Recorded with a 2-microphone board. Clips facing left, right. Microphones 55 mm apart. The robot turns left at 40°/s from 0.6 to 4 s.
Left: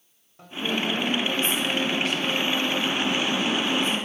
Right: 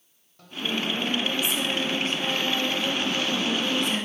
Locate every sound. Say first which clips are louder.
0.4 s singing: left 2 dB; 20° left, 4 m; by 4.1 s 115° right, 4 m